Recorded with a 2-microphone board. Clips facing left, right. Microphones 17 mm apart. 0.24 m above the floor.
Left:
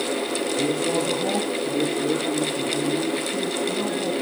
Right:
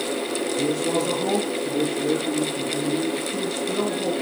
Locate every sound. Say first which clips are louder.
0.6 s a man speaking: even; 70° right (ahead or behind), 4.5 m